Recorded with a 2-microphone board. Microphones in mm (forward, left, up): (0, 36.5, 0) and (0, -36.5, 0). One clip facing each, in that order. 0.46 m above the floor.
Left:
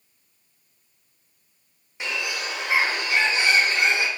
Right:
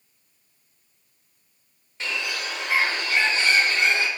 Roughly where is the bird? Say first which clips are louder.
Left 1 dB; centre.